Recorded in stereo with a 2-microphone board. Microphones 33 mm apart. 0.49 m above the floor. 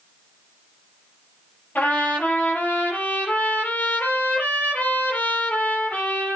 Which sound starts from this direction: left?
A trumpet, at 1.8 s.